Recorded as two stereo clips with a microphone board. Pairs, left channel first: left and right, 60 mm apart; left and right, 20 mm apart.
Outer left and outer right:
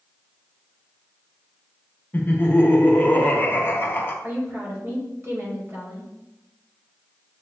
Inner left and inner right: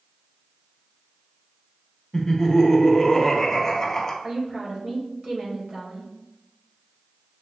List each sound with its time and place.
2.1 s laughter: 30° left (ahead or behind), 0.9 m
4.2 s a woman speaking: 35° right (ahead or behind), 1.6 m